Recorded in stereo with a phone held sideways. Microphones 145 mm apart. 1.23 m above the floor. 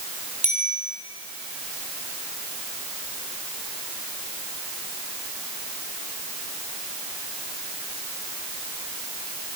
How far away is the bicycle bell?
About 10 m.